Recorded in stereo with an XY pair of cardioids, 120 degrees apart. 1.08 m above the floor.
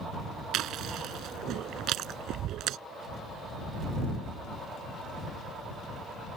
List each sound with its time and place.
0.5 s chewing: 65° right